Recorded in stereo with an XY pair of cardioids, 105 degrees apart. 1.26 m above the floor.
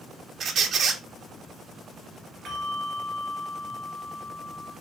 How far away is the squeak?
About 0.7 m.